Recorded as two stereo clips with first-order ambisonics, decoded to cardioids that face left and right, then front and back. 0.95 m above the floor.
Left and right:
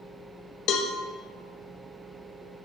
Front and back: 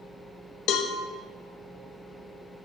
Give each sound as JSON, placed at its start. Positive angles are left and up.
{"t": 0.7, "sound": "a cowbell", "azimuth_deg": 45, "distance_m": 0.5}